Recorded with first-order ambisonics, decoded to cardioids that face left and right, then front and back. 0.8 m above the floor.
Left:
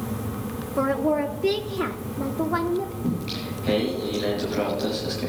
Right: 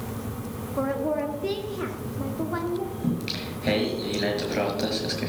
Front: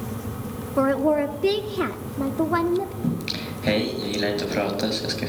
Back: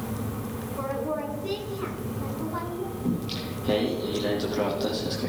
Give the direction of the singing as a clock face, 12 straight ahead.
1 o'clock.